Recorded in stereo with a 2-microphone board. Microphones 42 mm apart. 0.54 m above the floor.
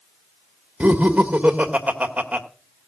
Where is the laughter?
30° right (ahead or behind), 1.3 m.